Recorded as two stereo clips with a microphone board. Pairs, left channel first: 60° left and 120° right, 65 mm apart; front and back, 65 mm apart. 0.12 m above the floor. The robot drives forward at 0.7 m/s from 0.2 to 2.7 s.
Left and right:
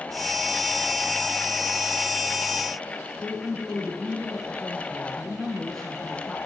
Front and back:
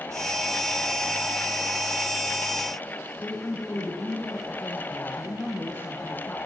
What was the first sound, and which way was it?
A woman speaking, 25° right.